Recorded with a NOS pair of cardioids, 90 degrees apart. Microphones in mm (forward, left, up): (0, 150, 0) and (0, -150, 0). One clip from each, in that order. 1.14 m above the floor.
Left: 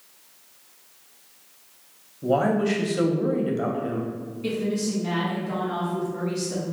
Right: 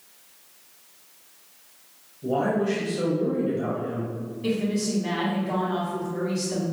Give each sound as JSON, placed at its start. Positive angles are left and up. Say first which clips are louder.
{"t": 2.2, "sound": "a woman speaking", "louder": "left 2 dB", "azimuth_deg": 45, "distance_m": 0.8}
{"t": 4.4, "sound": "a woman speaking", "louder": "even", "azimuth_deg": -10, "distance_m": 1.5}